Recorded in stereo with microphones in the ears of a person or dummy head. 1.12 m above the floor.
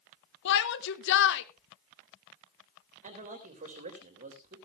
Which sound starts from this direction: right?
A man speaking, at 3.0 s.